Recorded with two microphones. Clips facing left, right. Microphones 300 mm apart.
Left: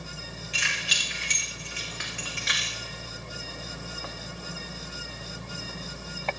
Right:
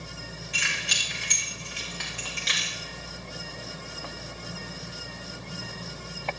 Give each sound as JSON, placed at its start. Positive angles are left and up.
{"t": 0.5, "sound": "keys jangling", "side_deg": -60, "distance_m": 5.0}